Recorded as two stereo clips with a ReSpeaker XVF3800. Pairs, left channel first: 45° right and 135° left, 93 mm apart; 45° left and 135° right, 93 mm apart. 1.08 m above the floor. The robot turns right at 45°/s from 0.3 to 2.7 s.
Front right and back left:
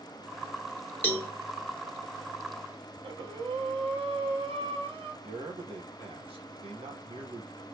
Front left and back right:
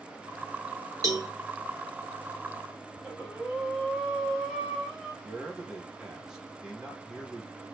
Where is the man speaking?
140° left, 1.1 m.